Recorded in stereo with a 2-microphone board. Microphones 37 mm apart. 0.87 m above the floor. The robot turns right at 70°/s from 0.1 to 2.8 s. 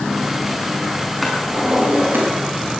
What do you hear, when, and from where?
1.2 s a drawer: straight behind, 5.5 m; by 2.3 s 110° right, 5.5 m